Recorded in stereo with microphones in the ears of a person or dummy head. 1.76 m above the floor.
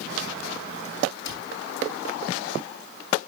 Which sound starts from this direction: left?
A cupboard door, at 1.2 s.